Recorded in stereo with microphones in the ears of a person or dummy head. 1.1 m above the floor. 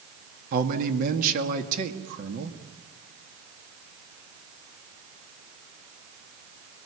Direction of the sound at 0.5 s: 55° right (ahead or behind).